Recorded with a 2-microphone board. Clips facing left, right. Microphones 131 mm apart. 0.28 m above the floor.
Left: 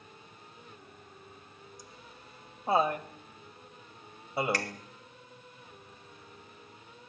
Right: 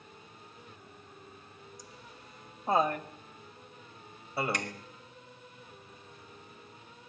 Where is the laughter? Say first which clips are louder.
Even; centre (ahead or behind), 1.5 m; by 4.8 s 20° left (ahead or behind), 1.4 m.